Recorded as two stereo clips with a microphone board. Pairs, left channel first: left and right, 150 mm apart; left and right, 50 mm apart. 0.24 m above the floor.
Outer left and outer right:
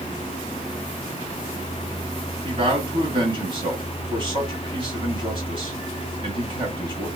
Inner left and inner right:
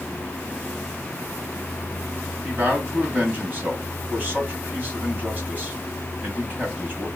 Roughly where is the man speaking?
Right.